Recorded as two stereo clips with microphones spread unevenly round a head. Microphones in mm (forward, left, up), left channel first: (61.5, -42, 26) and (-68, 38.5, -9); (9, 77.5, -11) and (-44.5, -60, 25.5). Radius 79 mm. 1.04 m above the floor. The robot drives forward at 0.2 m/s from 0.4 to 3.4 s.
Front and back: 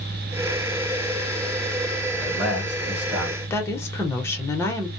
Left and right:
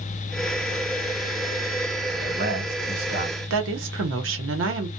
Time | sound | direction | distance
2.2 | a man speaking | 135° right | 1.4 m
3.5 | a woman speaking | 110° right | 1.0 m